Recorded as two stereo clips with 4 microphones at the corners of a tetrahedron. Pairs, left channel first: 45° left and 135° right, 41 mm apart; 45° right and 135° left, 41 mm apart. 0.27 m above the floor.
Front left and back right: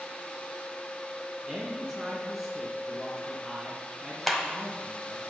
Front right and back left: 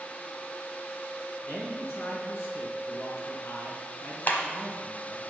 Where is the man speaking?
55° right, 3.5 m.